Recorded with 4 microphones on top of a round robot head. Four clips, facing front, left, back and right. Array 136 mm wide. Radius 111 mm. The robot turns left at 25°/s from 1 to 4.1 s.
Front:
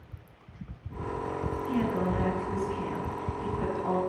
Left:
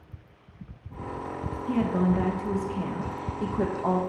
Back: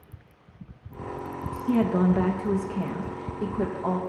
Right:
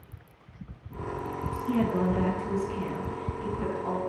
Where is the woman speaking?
Straight behind, 1.0 m; by 4.0 s 125° left, 1.0 m.